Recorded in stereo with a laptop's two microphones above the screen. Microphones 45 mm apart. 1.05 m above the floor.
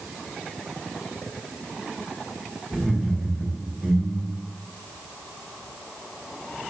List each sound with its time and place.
2.7 s laughter: 5° right (ahead or behind), 3.5 m; by 4.5 s 10° right (ahead or behind), 2.5 m